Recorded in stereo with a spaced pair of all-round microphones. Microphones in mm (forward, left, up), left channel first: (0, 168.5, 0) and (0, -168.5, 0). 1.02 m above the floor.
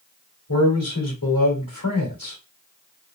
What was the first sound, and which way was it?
A man speaking, 75° left (ahead or behind).